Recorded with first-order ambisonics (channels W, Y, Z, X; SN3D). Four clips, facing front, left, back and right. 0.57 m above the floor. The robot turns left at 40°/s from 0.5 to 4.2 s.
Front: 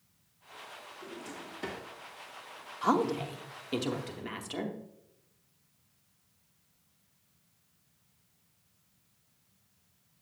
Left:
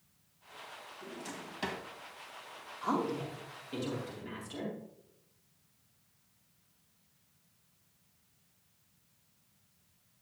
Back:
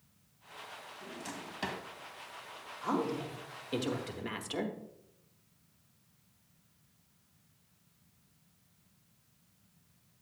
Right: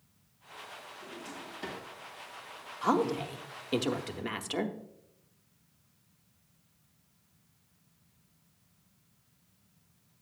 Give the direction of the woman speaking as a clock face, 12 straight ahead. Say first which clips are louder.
Right 5 dB, front 6 dB; 1 o'clock.